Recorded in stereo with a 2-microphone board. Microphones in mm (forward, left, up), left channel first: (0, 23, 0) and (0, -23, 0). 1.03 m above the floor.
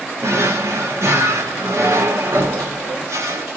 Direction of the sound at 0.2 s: 80° right.